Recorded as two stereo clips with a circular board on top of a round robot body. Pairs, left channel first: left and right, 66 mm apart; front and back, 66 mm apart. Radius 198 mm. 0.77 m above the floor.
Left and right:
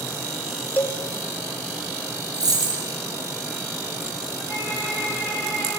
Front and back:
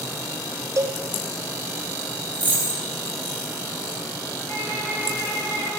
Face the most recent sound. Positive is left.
turn(degrees=-55)